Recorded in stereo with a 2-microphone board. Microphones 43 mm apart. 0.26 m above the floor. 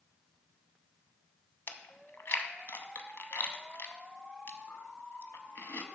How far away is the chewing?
About 0.6 m.